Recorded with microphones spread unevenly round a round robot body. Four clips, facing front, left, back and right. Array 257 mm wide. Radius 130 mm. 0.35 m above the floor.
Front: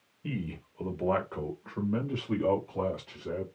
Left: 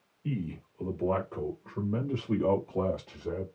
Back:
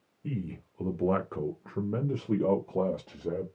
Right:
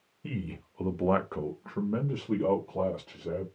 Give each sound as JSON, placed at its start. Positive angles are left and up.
{"t": 0.2, "sound": "a man speaking", "azimuth_deg": -55, "distance_m": 1.7}